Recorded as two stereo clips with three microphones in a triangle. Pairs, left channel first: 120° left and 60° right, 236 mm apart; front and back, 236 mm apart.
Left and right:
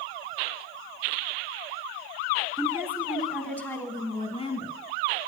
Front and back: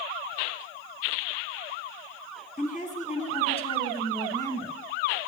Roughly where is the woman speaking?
Ahead.